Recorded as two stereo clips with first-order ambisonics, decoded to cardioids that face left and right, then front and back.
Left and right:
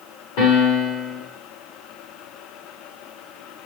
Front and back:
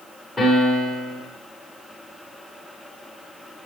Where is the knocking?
I don't hear knocking.